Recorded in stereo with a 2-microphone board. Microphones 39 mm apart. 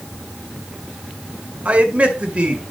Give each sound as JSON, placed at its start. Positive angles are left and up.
{"t": 1.6, "sound": "a man speaking", "side_deg": -35, "distance_m": 2.0}